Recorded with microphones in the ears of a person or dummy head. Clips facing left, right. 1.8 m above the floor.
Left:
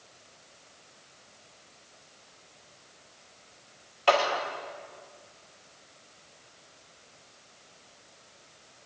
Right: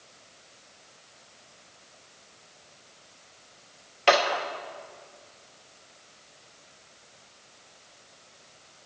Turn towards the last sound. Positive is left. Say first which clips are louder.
# right 2 dB
turn(degrees=-30)  # may be behind; listen again after turning